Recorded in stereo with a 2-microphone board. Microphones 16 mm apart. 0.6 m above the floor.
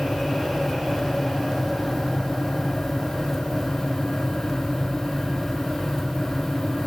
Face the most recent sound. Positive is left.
No sound to turn to.